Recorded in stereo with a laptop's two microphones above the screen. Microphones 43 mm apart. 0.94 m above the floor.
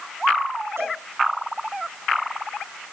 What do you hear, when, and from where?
0.8 s a cowbell: 75° right (ahead or behind), 8.5 m